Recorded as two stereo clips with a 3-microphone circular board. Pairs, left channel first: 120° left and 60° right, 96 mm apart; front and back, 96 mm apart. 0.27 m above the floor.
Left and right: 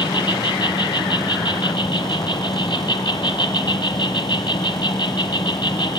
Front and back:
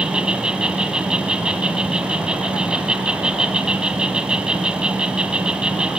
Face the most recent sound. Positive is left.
turn(degrees=100)